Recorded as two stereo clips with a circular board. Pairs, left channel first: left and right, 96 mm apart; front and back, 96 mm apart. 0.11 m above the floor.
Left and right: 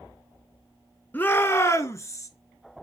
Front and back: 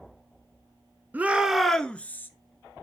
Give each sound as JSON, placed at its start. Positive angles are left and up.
{"t": 1.1, "sound": "a shout", "azimuth_deg": 130, "distance_m": 1.1}